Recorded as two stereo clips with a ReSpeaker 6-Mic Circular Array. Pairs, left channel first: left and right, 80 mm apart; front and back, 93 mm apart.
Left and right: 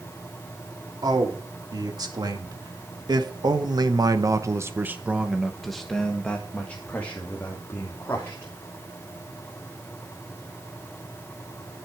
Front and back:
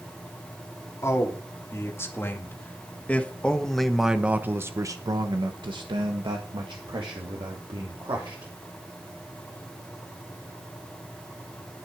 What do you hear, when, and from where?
1.0 s a man speaking: 55° right, 3 m; by 8.5 s 150° left, 3.5 m